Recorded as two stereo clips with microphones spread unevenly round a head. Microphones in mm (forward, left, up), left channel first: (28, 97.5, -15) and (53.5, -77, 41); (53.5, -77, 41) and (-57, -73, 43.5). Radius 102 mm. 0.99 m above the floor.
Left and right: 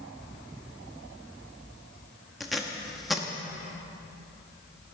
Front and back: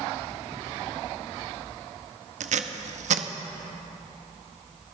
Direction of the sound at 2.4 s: 170° right.